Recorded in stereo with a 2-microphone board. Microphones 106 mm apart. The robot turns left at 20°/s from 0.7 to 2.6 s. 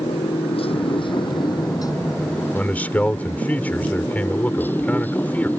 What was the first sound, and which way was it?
A motorcycle, 60° left (ahead or behind).